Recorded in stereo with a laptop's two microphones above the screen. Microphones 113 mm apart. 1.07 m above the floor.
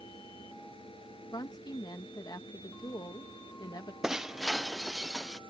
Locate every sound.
0.0 s a fan: 50° left (ahead or behind)
1.3 s a woman speaking: 35° left (ahead or behind)
4.0 s breaking glass: 5° right (ahead or behind)